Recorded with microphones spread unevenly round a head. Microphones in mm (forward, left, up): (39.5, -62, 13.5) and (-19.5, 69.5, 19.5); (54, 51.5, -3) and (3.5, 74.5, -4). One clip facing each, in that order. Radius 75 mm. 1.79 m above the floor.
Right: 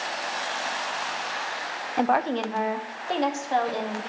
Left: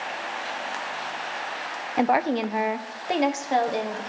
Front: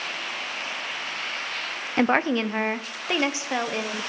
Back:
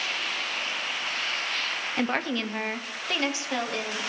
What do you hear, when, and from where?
2.0 s a woman speaking: 35° left, 0.5 m; by 4.1 s 45° left, 1.7 m